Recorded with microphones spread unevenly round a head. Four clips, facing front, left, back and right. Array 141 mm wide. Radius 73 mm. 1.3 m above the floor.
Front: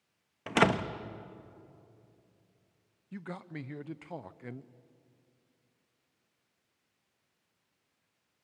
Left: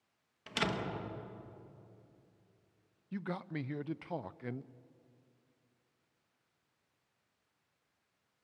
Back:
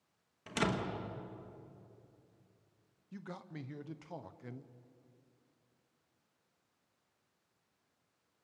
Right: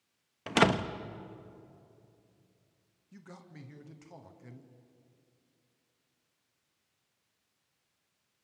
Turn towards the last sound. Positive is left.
turn(degrees=55)